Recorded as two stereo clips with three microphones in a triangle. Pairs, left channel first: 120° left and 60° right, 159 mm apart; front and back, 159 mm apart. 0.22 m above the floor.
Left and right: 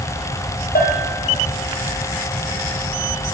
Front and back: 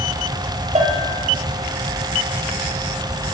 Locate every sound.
0.8 s a bell: 135° left, 2 m